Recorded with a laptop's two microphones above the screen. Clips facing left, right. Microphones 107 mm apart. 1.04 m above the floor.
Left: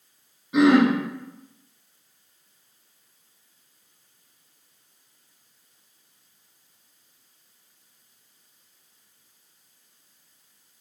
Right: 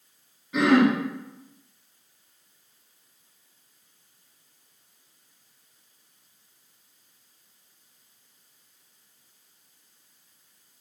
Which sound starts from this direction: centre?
Throat clearing, at 0.5 s.